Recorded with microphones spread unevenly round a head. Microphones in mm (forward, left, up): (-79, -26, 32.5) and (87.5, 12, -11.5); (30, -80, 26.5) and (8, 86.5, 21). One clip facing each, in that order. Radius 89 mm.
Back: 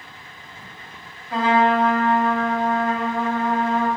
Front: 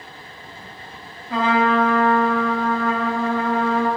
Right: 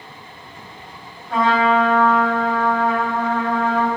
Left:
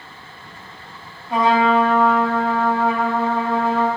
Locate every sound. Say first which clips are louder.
1.3 s a trumpet: even, left 1 dB; 20° left, 2.5 m